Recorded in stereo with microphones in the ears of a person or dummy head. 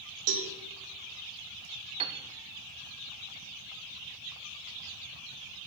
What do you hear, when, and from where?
0.3 s a cowbell: 75° right (ahead or behind), 1.9 m
2.0 s a piano: 35° right (ahead or behind), 0.8 m